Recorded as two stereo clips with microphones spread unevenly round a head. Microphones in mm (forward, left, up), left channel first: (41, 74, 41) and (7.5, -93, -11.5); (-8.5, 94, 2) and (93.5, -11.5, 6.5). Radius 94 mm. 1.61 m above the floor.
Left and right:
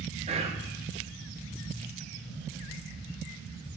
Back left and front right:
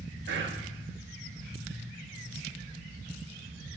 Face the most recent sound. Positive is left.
turn(degrees=-45)